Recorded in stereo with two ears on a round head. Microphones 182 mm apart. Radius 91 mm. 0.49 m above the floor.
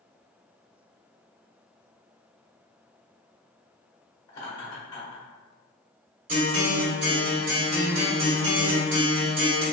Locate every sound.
4.3 s laughter: 20° left (ahead or behind), 0.8 m
6.3 s a guitar: 40° right (ahead or behind), 1.6 m